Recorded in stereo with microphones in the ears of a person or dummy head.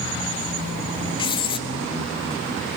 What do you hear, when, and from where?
1.2 s writing: 30° left (ahead or behind), 0.7 m